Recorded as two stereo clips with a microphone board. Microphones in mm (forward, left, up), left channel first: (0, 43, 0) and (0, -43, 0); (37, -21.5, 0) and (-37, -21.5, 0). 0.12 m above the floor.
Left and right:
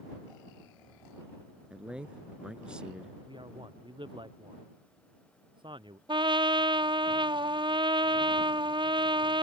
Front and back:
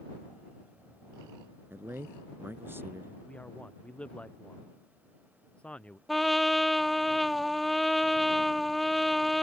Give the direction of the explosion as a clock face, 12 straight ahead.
I don't hear an explosion.